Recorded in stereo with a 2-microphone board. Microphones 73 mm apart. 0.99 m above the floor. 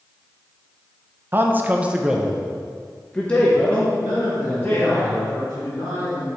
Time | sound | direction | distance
1.3 | a man speaking | 30° right (ahead or behind) | 0.7 m
4.0 | a man speaking | 60° left (ahead or behind) | 2.5 m